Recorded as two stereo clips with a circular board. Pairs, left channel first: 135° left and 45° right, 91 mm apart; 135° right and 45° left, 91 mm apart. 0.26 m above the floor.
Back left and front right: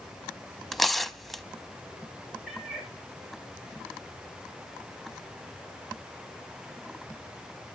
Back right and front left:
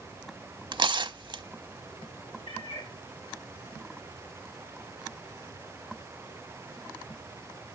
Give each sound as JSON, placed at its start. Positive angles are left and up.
{"t": 0.7, "sound": "tearing paper", "azimuth_deg": 45, "distance_m": 0.6}
{"t": 2.5, "sound": "a cat meowing", "azimuth_deg": -130, "distance_m": 4.5}